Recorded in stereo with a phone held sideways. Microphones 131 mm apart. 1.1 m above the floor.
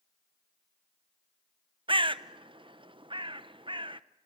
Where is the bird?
40° right (ahead or behind), 0.7 m.